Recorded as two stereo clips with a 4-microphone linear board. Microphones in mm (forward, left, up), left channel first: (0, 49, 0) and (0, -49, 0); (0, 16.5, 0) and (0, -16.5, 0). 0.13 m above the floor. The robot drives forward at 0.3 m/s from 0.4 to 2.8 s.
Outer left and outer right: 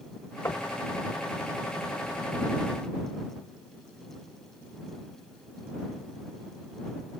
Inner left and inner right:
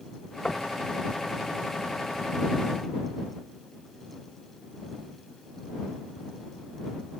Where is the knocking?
30° left (ahead or behind).